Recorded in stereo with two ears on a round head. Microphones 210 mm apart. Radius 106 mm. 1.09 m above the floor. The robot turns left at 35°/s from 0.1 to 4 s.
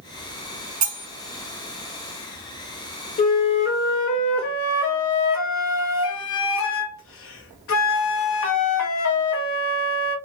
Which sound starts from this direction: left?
A flute, at 3.2 s.